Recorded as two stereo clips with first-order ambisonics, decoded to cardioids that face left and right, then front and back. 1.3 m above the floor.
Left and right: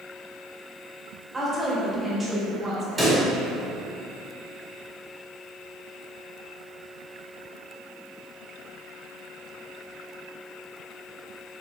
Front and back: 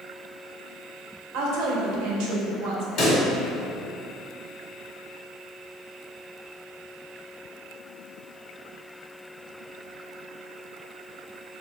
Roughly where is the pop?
Ahead.